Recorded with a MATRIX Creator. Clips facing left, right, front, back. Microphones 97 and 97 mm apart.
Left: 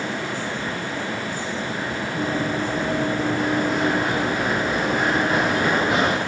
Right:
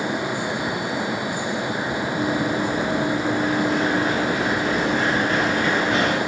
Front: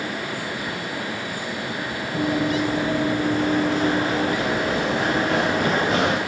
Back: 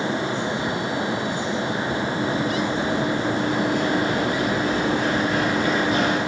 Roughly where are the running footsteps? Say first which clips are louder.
Right 1 dB, front 6 dB; ahead.